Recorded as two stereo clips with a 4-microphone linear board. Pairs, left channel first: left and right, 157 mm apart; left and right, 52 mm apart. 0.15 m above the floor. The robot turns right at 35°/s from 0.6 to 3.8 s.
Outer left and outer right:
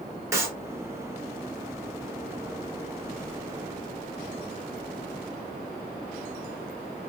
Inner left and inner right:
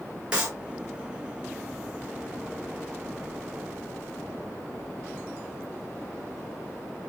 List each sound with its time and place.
0.3 s a clap: 15° right (ahead or behind), 1.6 m